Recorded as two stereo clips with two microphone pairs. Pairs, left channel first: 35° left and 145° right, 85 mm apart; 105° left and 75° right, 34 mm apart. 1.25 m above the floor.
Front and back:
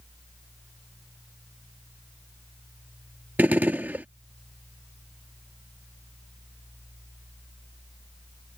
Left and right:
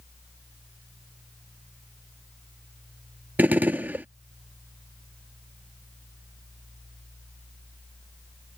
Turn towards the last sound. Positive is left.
turn(degrees=-80)